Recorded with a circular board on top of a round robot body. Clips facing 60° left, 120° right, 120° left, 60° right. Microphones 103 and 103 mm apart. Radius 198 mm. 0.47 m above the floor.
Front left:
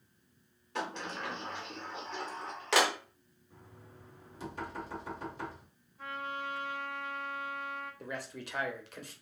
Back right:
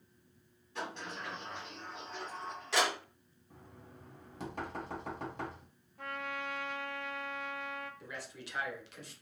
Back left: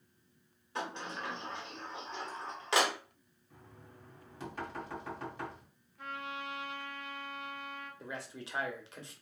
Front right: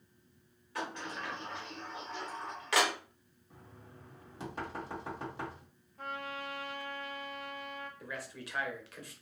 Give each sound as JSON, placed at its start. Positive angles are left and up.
{"t": 0.8, "sound": "a sliding door", "azimuth_deg": 55, "distance_m": 0.6}
{"t": 3.5, "sound": "knocking", "azimuth_deg": -125, "distance_m": 1.9}
{"t": 6.0, "sound": "a trumpet", "azimuth_deg": -105, "distance_m": 0.6}
{"t": 8.0, "sound": "a man speaking", "azimuth_deg": 65, "distance_m": 1.0}